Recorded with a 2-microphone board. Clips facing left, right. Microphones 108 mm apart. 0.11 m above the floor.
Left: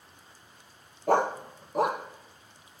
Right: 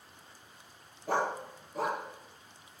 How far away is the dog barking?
About 1.3 m.